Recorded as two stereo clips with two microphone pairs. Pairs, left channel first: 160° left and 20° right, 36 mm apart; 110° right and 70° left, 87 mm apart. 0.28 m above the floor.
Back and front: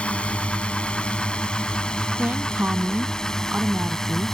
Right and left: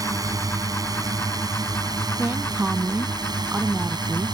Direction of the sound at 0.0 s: 105° left.